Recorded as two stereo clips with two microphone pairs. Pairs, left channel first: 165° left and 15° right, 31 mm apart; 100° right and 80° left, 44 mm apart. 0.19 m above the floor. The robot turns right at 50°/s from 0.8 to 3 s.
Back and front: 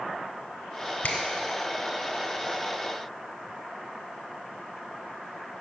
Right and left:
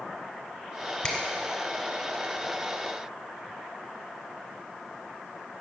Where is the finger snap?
Straight behind, 2.5 m; by 1.2 s 175° right, 2.5 m.